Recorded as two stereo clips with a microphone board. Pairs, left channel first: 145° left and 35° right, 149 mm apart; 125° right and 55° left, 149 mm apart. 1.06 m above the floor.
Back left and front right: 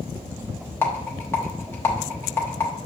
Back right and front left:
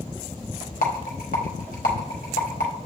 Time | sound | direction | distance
0.8 | a rattle | 140° right | 0.9 m